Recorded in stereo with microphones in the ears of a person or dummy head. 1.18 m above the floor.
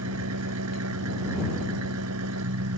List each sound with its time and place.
0.0 s an engine running: 85° right